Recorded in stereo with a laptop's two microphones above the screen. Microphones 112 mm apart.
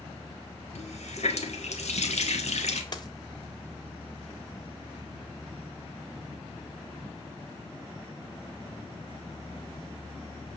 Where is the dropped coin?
40° left (ahead or behind), 0.9 m.